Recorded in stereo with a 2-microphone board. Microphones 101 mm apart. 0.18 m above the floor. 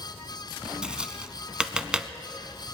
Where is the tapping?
10° right (ahead or behind), 0.5 m.